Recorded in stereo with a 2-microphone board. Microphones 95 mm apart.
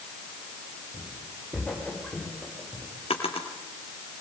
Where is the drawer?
85° left, 4.5 m.